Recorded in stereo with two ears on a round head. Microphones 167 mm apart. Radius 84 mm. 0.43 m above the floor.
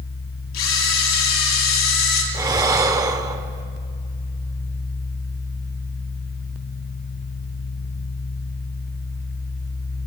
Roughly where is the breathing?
Centre.